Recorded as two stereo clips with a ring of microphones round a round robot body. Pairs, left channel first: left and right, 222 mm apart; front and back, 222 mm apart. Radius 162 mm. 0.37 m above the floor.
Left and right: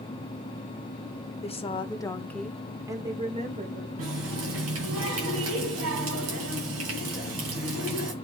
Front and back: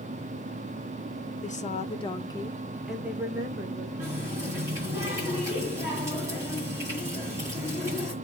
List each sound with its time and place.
1.4 s a woman speaking: 40° left, 1.7 m; by 3.9 s 125° right, 1.7 m
4.0 s a running tap: 100° right, 2.5 m